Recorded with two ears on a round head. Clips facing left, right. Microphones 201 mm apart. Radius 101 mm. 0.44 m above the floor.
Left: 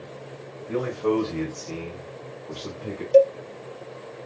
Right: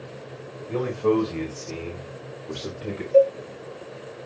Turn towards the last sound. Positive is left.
turn(degrees=45)  # may be behind; listen again after turning